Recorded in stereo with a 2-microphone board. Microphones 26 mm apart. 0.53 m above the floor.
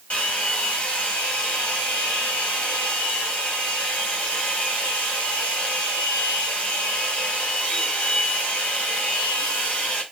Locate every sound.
0.1 s a hair dryer: 50° left (ahead or behind), 4 m